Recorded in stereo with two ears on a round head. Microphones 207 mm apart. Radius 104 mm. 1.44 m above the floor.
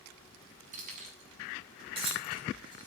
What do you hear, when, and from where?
0.7 s keys jangling: 35° right (ahead or behind), 7.5 m; by 2.9 s 20° right (ahead or behind), 8.5 m